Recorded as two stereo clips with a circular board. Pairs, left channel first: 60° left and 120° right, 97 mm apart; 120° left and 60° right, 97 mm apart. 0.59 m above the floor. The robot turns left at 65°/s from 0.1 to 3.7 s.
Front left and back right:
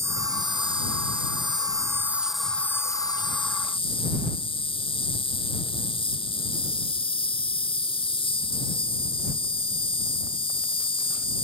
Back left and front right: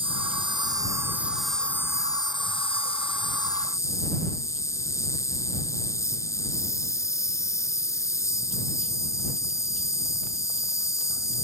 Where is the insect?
60° right; by 11.4 s 65° left.